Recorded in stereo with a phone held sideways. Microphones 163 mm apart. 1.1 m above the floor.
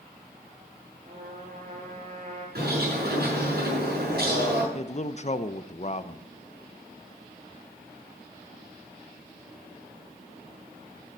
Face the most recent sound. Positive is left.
turn(degrees=45)  # may be behind; listen again after turning